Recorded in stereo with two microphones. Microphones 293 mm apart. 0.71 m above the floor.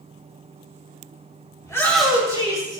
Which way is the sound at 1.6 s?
15° left (ahead or behind).